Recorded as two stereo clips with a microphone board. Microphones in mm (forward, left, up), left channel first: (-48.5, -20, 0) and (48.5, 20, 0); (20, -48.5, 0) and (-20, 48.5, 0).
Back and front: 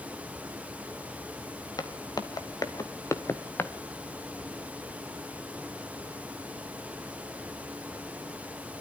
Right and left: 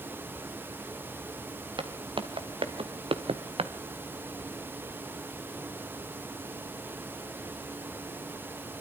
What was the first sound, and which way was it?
Footsteps, 150° left.